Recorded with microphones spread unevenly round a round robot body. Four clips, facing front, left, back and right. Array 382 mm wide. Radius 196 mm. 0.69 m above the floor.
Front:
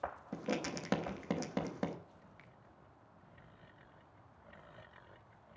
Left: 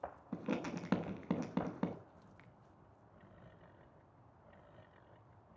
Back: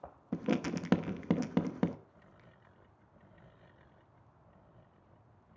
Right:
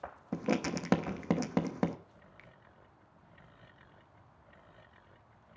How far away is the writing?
About 1.0 m.